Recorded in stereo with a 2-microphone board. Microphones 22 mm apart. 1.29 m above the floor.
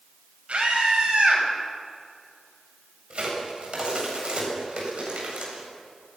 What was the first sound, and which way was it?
A scream, 75° right (ahead or behind).